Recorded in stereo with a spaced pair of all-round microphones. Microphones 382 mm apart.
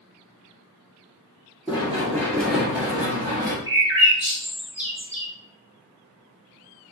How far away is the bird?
About 1.6 m.